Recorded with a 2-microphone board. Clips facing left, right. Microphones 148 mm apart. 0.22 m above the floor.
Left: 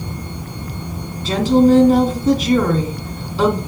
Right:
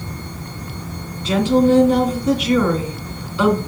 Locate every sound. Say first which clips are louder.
1.2 s a woman speaking: left 2 dB; 40° left (ahead or behind), 2 m